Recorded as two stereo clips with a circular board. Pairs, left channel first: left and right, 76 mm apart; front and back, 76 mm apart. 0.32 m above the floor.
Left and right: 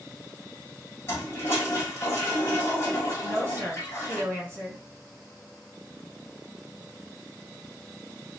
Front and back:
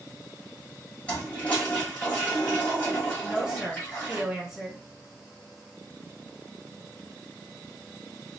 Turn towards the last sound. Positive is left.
turn(degrees=-105)